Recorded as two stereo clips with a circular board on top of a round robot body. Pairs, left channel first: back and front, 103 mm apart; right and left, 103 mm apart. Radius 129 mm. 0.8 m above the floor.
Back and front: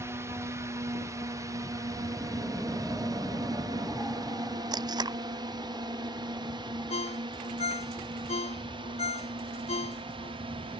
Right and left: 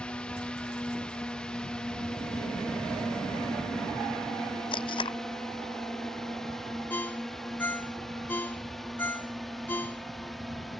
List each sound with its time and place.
0.0 s a drone: 20° right; by 10.8 s straight ahead
4.7 s tape being pulled: 50° right
6.9 s a ringtone: 165° right